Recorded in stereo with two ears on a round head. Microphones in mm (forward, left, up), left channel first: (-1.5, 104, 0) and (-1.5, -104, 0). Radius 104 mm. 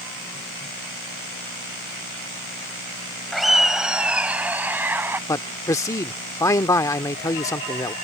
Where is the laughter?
Centre (ahead or behind); by 5.2 s 10° right (ahead or behind).